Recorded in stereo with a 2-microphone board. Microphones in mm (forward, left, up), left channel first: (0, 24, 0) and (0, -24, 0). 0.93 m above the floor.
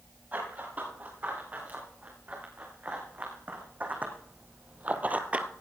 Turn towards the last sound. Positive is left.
turn(degrees=-25)  # may be behind; listen again after turning